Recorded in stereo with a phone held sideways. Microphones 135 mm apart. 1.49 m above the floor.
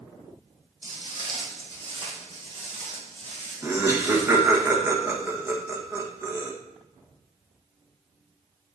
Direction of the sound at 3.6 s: 20° right (ahead or behind).